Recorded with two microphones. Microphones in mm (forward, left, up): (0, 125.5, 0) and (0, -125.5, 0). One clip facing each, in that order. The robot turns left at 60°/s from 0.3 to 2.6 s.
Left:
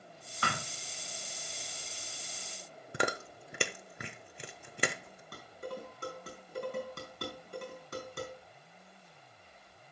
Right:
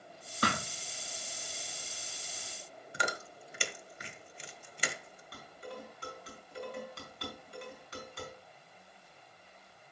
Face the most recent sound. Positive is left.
turn(degrees=50)  # may be behind; listen again after turning